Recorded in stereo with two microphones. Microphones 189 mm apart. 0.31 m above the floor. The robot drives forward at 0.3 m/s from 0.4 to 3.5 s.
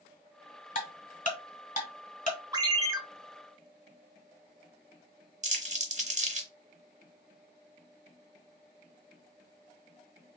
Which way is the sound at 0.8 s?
45° left (ahead or behind).